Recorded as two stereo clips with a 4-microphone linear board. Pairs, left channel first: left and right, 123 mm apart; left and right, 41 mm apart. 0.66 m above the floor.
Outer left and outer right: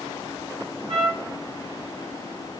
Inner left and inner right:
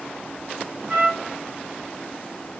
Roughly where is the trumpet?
Right.